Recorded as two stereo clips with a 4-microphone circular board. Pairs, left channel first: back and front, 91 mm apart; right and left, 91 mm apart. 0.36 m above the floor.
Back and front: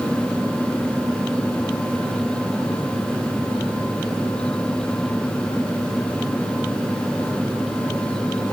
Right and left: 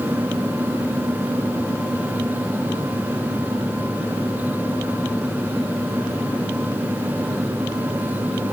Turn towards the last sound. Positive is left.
No sound to turn to.